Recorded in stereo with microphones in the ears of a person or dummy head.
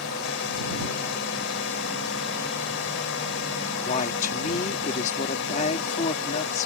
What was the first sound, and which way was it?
A drone, 65° left (ahead or behind).